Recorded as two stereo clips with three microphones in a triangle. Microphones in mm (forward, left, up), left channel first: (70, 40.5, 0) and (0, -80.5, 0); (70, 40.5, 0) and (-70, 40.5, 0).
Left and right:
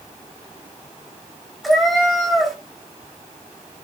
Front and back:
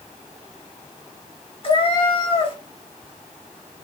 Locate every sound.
1.6 s a cat meowing: 30° right, 0.9 m